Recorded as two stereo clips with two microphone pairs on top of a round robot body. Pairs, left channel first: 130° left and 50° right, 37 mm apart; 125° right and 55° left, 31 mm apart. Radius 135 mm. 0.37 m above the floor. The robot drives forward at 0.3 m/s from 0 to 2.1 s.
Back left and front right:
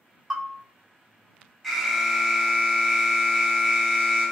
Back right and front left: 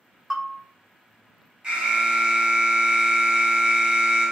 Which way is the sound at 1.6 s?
30° left.